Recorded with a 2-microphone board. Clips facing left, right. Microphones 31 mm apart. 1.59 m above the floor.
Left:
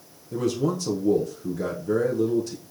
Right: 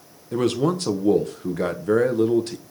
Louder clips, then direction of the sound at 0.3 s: Right 4 dB; 60° right (ahead or behind).